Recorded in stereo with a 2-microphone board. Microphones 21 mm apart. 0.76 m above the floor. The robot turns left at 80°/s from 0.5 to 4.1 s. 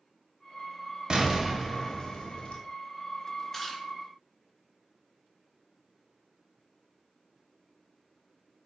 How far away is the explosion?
About 0.6 m.